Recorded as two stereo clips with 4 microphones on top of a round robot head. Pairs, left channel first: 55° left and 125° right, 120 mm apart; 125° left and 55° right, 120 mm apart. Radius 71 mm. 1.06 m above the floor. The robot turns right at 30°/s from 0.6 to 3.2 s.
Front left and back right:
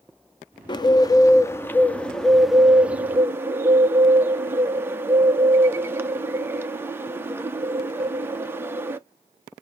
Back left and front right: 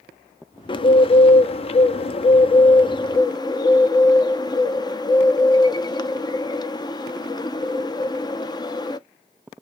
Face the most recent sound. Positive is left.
turn(degrees=170)